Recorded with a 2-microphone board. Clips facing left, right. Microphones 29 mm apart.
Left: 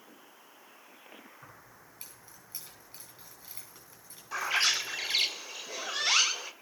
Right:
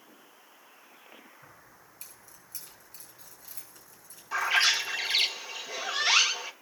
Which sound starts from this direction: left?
Keys jangling, at 1.4 s.